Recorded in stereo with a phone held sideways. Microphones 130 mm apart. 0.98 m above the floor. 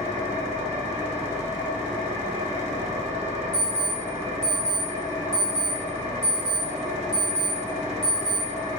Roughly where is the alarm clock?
Left.